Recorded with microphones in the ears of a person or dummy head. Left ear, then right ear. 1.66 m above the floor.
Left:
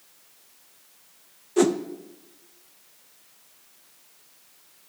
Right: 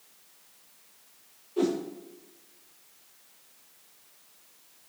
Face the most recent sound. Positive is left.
turn(degrees=55)  # may be behind; listen again after turning